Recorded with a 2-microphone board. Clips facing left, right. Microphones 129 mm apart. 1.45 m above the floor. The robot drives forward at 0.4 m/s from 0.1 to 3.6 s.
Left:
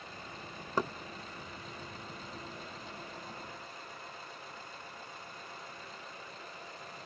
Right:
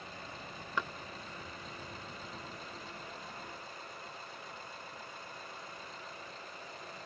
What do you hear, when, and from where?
0.8 s knocking: 35° left (ahead or behind); by 0.9 s 40° left (ahead or behind)